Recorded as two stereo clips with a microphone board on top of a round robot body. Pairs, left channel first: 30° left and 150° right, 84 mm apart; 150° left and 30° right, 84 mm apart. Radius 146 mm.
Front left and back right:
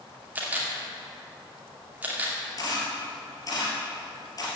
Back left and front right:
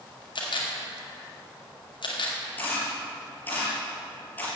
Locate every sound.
0.3 s a camera shutter: 140° left, 2.5 m
2.6 s a camera shutter: 80° left, 2.5 m